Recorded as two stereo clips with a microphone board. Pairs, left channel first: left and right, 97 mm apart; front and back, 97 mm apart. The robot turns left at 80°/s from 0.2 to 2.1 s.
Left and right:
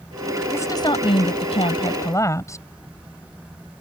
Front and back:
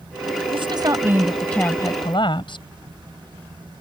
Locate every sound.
0.5 s a woman speaking: 160° left; by 2.6 s 30° left